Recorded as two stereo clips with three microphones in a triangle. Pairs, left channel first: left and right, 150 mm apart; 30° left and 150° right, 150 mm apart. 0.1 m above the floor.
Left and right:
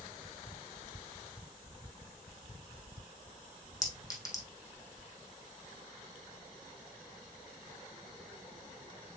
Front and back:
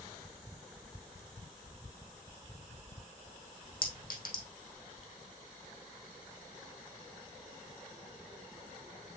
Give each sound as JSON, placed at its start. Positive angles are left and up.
{"t": 3.8, "sound": "a clink", "azimuth_deg": 25, "distance_m": 4.0}